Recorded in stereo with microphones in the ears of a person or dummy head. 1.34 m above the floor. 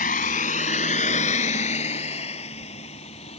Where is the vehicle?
40° left (ahead or behind); by 3.4 s 30° left (ahead or behind).